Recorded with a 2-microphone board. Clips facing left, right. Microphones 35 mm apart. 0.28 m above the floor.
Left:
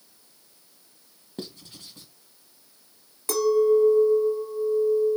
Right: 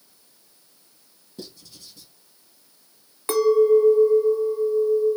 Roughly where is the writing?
Left.